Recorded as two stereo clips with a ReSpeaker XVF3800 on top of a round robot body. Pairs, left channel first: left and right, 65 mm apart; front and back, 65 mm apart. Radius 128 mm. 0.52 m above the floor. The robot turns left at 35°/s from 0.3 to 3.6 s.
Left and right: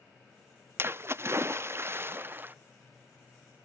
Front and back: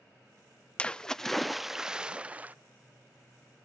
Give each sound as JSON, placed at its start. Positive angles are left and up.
{"t": 0.8, "sound": "a splash", "azimuth_deg": -65, "distance_m": 0.6}